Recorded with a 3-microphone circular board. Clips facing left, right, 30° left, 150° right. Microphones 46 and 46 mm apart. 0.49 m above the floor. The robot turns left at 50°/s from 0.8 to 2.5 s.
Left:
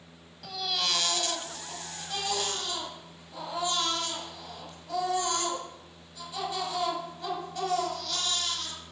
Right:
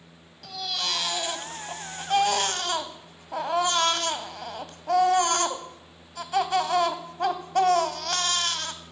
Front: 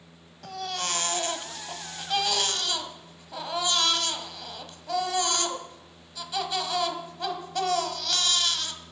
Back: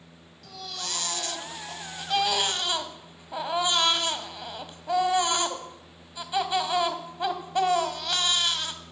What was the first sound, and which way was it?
A baby crying, 5° left.